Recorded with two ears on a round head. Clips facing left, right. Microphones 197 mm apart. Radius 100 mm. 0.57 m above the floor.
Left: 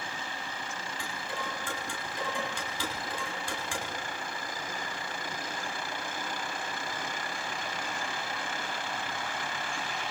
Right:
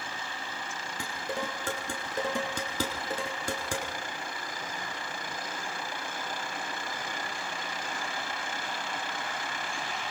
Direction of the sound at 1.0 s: 40° right (ahead or behind).